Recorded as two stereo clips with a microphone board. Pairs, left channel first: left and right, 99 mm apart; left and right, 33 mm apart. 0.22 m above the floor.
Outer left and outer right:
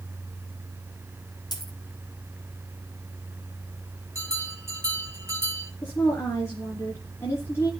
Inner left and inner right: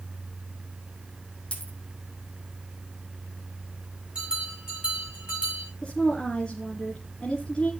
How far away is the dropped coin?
About 3.5 m.